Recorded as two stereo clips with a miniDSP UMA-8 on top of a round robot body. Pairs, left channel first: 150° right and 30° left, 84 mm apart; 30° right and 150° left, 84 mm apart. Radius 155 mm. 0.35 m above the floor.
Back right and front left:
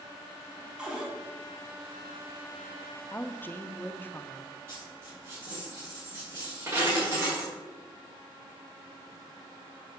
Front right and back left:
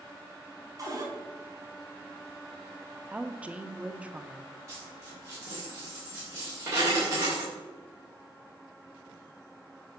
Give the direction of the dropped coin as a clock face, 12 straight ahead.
9 o'clock.